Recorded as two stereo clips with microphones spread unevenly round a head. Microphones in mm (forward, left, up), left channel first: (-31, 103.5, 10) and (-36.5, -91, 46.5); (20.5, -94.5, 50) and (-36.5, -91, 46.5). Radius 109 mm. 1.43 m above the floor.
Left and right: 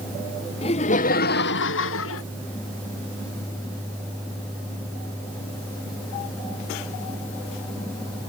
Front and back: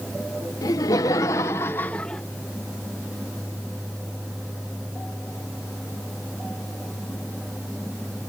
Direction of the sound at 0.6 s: 25° left.